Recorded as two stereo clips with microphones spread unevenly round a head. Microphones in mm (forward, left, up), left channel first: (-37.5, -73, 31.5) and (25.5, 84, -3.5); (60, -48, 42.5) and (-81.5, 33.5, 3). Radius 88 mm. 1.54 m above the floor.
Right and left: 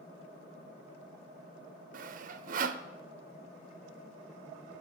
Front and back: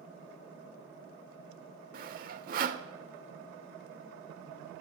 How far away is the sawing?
About 0.5 m.